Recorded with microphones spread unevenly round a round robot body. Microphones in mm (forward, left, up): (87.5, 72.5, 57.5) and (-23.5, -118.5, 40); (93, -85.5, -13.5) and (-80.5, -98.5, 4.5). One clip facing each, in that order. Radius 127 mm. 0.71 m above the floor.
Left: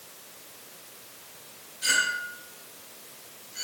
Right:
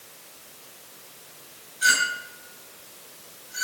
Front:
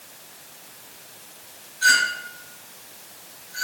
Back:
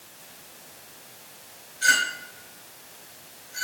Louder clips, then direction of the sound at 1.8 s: Right 3 dB, front 3 dB; 115° right.